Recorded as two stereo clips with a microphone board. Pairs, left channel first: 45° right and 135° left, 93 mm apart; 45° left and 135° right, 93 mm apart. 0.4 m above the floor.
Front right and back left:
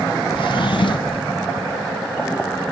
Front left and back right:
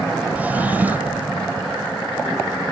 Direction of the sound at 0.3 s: 65° right.